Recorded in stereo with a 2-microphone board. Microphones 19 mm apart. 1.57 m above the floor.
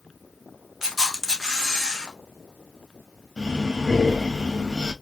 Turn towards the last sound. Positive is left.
turn(degrees=20)  # may be behind; listen again after turning